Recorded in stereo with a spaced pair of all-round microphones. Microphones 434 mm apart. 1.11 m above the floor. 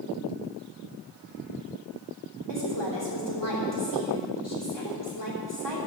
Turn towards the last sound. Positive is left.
turn(degrees=70)  # may be behind; listen again after turning